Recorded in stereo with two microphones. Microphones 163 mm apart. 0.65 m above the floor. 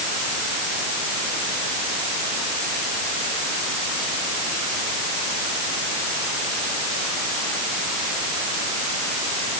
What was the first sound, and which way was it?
Only background noise.